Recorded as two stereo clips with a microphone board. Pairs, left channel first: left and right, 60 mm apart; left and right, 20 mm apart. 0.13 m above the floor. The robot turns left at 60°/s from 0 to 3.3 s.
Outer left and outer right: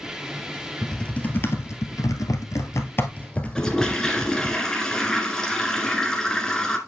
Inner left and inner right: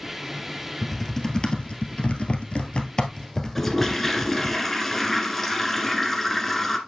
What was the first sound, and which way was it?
Typing on a keyboard, 5° left (ahead or behind).